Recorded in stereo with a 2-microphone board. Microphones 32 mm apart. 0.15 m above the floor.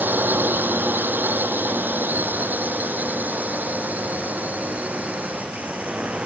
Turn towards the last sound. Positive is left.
turn(degrees=-35)  # may be behind; listen again after turning